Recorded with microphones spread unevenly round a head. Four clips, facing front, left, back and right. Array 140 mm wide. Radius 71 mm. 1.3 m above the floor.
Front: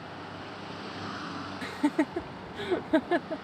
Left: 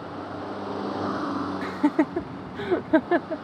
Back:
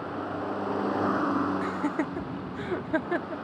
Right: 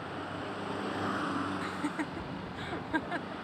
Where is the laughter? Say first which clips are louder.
Left 12 dB, front 1 dB; 80° left.